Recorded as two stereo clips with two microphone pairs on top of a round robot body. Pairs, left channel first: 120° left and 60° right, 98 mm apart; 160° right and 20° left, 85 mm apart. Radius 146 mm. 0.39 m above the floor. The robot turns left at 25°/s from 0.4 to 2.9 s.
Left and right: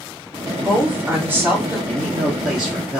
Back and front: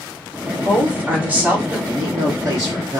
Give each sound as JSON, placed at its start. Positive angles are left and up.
{"t": 0.6, "sound": "a woman speaking", "azimuth_deg": 0, "distance_m": 1.4}
{"t": 1.9, "sound": "a man speaking", "azimuth_deg": 60, "distance_m": 1.4}